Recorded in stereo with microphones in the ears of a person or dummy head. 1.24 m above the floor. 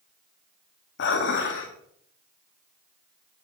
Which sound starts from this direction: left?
Dishes clattering, at 1.0 s.